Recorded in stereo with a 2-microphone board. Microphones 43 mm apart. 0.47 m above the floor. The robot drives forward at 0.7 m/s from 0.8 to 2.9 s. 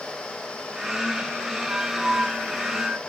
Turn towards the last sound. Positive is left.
turn(degrees=-10)  # may be behind; listen again after turning